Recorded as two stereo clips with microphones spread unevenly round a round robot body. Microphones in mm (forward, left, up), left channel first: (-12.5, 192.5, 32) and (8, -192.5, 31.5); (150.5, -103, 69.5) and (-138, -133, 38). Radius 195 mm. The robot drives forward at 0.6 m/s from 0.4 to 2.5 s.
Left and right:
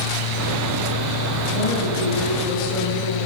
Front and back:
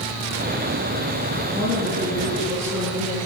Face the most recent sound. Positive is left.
turn(degrees=105)